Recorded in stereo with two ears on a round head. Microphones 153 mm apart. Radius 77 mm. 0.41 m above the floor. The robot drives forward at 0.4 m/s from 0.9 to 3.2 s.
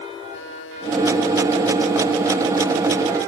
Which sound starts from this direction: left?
A buzzer, at 0.3 s.